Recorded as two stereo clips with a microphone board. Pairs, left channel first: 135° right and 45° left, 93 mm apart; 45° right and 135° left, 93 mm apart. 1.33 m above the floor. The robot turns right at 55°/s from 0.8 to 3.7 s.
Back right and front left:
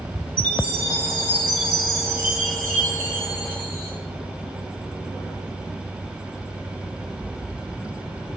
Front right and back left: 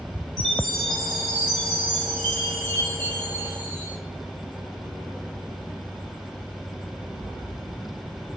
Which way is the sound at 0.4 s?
35° left.